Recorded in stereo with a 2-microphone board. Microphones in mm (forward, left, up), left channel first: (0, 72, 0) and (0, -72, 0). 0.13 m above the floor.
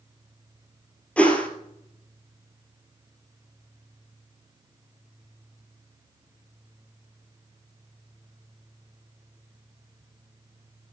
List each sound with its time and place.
1.2 s a whoosh: 10° left (ahead or behind), 1.7 m